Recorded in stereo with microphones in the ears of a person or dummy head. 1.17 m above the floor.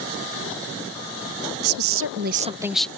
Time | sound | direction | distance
1.6 | a woman speaking | 90° right | ?